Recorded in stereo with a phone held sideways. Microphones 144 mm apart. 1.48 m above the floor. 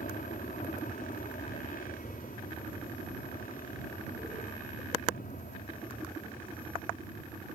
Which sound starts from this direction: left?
An aircraft, at 0.0 s.